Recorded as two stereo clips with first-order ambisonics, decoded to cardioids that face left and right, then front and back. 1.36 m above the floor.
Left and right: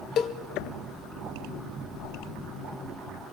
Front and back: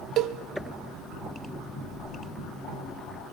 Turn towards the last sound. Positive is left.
turn(degrees=135)